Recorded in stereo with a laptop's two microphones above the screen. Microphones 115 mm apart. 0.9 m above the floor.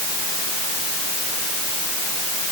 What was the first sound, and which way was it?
Only background noise.